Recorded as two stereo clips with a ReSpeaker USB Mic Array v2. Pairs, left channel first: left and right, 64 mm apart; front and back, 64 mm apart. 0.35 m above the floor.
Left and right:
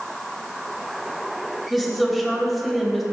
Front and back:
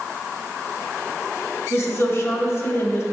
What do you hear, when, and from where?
1.7 s a woman speaking: straight ahead, 1.7 m